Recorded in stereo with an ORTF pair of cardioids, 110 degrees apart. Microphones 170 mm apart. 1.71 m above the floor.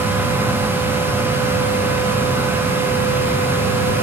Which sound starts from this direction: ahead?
A fan, at 0.0 s.